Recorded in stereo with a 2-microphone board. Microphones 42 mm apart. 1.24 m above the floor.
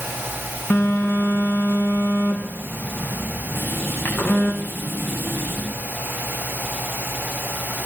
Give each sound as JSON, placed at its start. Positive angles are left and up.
{"t": 0.7, "sound": "a phone buzzing", "side_deg": 60, "distance_m": 4.5}
{"t": 3.5, "sound": "writing", "side_deg": 65, "distance_m": 8.5}